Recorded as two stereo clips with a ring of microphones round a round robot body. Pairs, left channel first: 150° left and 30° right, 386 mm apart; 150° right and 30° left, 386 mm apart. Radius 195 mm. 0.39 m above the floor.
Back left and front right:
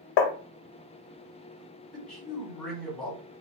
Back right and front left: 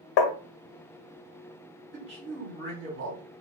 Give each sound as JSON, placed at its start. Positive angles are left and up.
{"t": 0.2, "sound": "tapping", "azimuth_deg": 180, "distance_m": 0.5}
{"t": 1.9, "sound": "a man speaking", "azimuth_deg": 60, "distance_m": 1.1}